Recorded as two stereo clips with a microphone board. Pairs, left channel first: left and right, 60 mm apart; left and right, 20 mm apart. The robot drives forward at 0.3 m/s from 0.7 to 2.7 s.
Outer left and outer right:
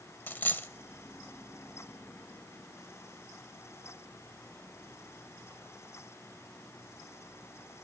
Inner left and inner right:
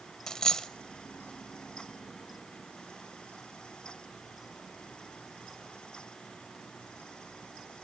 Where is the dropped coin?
35° left (ahead or behind), 0.7 m.